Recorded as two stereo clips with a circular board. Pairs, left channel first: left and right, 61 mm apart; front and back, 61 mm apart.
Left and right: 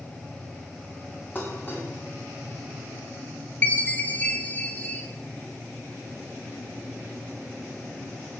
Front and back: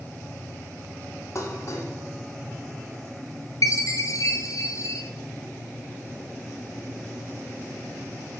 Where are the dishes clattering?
35° left, 1.3 m.